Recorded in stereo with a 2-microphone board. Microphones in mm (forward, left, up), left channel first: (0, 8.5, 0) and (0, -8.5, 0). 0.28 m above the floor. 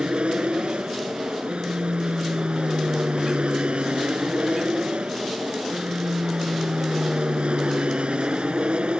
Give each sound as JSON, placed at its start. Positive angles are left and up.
{"t": 0.0, "sound": "an aircraft", "side_deg": -70}